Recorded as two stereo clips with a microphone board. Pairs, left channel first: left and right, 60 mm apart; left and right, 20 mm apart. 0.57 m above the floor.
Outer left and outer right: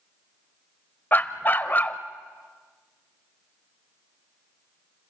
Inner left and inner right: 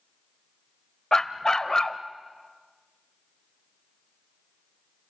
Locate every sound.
1.1 s a dog barking: 35° left (ahead or behind), 0.8 m